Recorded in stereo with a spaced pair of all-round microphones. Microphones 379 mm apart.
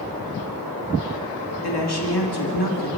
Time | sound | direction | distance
1.6 | a woman speaking | 85° left | 2.5 m